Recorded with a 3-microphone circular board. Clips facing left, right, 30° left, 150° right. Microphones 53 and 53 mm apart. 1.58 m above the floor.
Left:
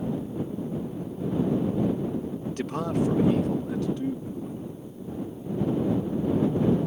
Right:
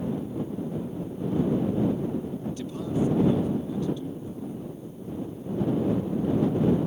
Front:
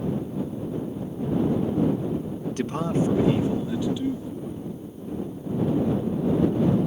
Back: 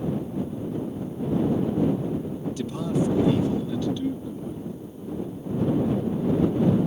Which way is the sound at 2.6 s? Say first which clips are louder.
Left 2 dB, front 2 dB; 65° left.